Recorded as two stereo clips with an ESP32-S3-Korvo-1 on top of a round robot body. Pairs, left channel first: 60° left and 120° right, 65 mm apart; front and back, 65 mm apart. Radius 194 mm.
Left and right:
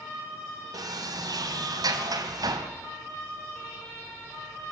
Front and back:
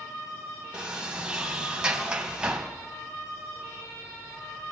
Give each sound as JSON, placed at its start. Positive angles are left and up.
{"t": 0.7, "sound": "a sliding door", "azimuth_deg": -105, "distance_m": 3.0}